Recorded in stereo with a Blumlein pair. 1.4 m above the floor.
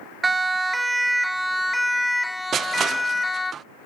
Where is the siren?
10° right; by 3.5 s 10° left.